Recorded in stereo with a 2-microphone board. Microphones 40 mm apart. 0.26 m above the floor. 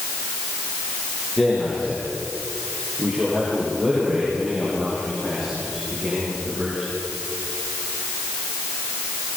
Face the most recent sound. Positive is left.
turn(degrees=-5)  # may be behind; listen again after turning